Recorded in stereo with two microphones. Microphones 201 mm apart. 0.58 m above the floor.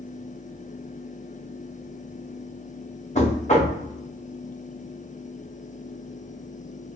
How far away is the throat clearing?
I don't hear throat clearing.